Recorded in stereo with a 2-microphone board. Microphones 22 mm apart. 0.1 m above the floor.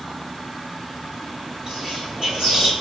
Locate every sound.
1.7 s whispering: 40° right (ahead or behind), 1.5 m